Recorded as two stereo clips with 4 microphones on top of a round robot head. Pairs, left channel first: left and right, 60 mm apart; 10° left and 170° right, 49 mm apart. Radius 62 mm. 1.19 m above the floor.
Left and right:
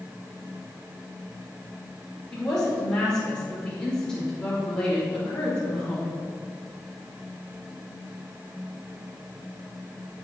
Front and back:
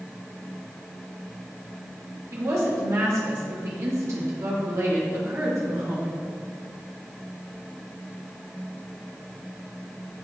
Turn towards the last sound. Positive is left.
turn(degrees=170)